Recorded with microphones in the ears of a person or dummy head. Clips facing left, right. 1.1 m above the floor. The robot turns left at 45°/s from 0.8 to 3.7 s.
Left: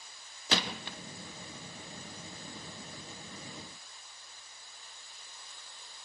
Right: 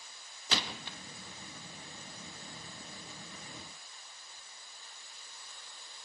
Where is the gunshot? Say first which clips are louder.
Left 4 dB; 50° left (ahead or behind), 0.6 m; by 1.0 s 40° left (ahead or behind), 0.6 m.